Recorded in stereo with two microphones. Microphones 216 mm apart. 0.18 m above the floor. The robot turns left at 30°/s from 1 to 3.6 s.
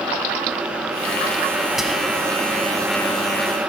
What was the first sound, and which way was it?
Whispering, centre (ahead or behind).